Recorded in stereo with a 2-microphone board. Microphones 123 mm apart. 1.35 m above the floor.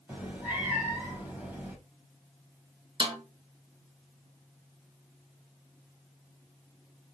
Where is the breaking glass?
I don't hear breaking glass.